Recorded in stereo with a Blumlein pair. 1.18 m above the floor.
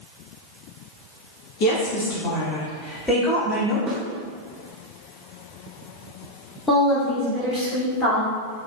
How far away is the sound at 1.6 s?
About 1.1 m.